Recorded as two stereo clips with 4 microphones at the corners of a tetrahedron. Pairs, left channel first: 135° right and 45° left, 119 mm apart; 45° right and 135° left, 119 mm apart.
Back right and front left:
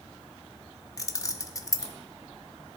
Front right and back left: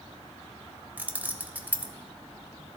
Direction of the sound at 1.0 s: 165° right.